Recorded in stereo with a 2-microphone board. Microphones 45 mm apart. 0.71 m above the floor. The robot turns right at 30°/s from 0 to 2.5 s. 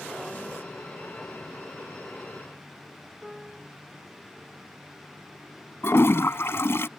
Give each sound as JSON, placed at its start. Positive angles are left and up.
{"t": 3.2, "sound": "a piano", "side_deg": 5}
{"t": 5.8, "sound": "a toilet flushing", "side_deg": 65}